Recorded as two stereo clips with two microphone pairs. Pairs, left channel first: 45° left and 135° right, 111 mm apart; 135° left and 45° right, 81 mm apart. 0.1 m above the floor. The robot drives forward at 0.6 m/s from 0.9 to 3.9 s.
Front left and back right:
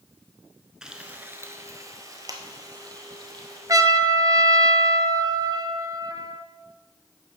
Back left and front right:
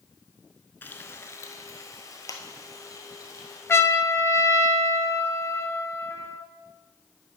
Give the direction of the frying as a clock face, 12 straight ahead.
7 o'clock.